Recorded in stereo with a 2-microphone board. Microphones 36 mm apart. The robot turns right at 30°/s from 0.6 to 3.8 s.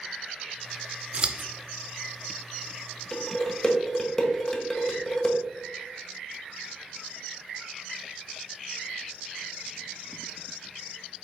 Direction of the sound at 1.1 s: 35° right (ahead or behind).